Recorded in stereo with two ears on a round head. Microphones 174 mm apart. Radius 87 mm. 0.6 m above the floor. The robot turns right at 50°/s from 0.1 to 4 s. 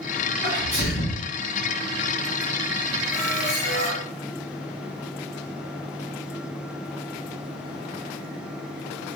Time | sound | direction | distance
0.4 | a sneeze | 35° left | 1.4 m
3.1 | a squeak | 75° left | 1.2 m